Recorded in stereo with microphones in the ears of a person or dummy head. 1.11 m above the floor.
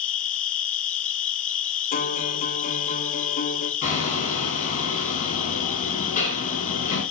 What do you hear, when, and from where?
0.0 s an insect: 40° left (ahead or behind), 0.7 m
1.9 s a guitar: 45° left (ahead or behind), 2.5 m
3.8 s hammering: 45° left (ahead or behind), 8 m